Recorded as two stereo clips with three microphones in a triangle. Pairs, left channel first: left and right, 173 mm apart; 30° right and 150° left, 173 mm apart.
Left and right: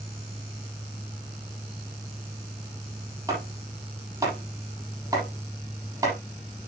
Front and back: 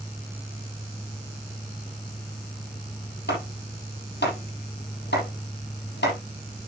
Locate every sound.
3.3 s chopping: 20° right, 7.5 m